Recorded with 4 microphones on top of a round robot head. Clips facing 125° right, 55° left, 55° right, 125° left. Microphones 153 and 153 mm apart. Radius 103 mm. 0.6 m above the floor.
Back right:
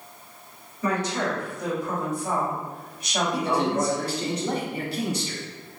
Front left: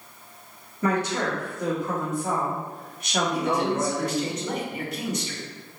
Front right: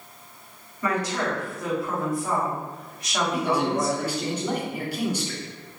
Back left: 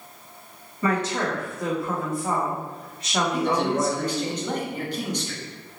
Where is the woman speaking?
65° left, 1.4 m.